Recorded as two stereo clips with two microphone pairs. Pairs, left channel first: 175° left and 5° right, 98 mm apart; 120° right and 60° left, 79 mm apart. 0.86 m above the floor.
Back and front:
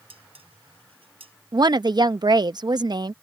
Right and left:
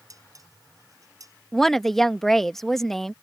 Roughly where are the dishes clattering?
Ahead.